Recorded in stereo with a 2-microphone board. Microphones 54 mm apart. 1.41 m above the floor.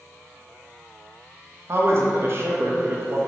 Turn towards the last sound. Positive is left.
turn(degrees=-45)  # may be behind; listen again after turning